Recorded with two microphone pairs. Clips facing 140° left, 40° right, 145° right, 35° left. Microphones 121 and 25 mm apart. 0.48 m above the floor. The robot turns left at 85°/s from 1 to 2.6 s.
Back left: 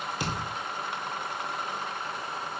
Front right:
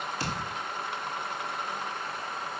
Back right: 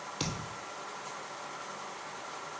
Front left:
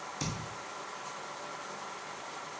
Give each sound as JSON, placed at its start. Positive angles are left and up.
{"t": 0.2, "sound": "a thud", "azimuth_deg": -150, "distance_m": 1.3}